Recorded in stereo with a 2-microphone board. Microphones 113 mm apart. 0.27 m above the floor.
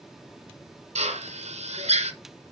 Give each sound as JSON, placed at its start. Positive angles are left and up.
{"t": 0.9, "sound": "a drill", "side_deg": -75, "distance_m": 1.8}